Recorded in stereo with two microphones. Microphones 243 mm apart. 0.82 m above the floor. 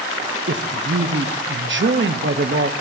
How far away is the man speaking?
About 0.6 m.